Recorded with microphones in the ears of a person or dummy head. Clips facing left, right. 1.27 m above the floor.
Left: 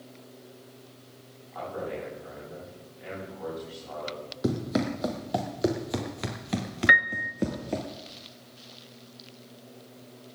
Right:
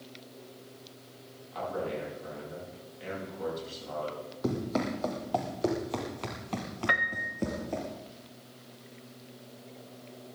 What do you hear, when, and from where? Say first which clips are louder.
1.5 s a man speaking: right 1 dB; 35° right (ahead or behind), 10 m
4.4 s running footsteps: left 3 dB; 20° left (ahead or behind), 2.5 m; by 7.9 s 15° left (ahead or behind), 1.3 m
6.9 s a piano: left 4 dB; 25° left (ahead or behind), 1.0 m